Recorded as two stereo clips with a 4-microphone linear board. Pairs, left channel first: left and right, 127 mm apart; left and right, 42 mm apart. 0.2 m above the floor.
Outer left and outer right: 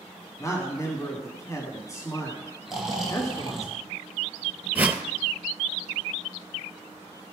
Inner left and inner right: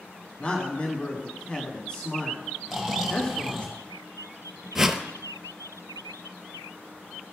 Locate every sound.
0.4 s a man speaking: 25° left (ahead or behind), 1.3 m
2.7 s snoring: centre (ahead or behind), 2 m
4.8 s a whoosh: 15° right (ahead or behind), 0.7 m